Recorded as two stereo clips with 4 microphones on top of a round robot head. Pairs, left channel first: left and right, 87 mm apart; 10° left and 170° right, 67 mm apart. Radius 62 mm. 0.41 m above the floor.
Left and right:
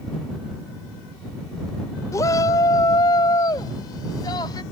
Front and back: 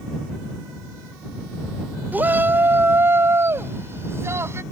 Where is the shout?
135° left; by 4.6 s 145° left.